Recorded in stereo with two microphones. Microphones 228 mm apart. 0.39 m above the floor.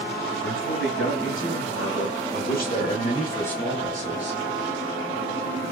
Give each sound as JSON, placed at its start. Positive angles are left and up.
{"t": 0.4, "sound": "a man speaking", "side_deg": 65, "distance_m": 3.0}